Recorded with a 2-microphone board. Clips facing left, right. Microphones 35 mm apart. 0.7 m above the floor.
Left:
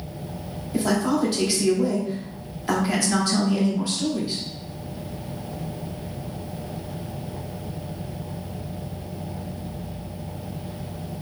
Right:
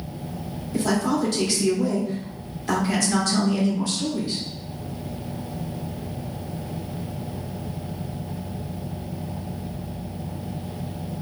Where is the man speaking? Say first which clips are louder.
Left 1 dB; 15° left (ahead or behind), 1.6 m.